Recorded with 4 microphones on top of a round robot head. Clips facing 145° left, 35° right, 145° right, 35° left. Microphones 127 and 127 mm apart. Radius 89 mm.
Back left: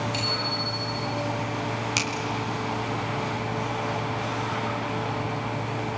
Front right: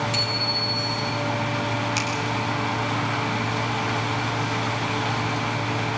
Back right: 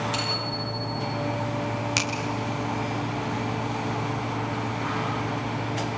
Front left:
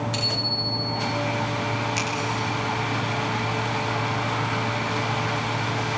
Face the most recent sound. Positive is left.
turn(degrees=-175)